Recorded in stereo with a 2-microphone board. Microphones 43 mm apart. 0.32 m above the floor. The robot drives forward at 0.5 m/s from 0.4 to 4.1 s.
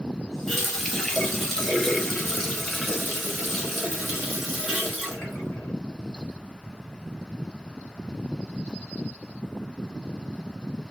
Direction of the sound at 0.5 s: 10° left (ahead or behind).